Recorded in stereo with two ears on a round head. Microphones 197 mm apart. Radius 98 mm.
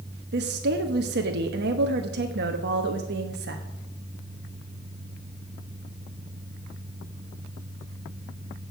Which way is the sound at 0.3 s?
50° right (ahead or behind).